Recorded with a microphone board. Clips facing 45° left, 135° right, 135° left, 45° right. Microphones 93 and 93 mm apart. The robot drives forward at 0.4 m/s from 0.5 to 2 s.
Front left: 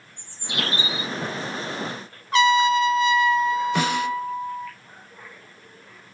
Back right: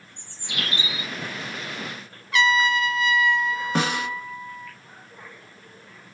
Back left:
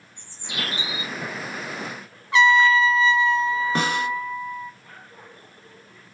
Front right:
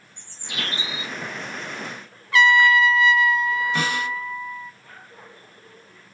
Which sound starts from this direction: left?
A trumpet, at 2.3 s.